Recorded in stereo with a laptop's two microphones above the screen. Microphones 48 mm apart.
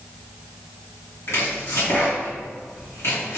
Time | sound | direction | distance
1.3 | chopping | 70° left (ahead or behind) | 1.7 m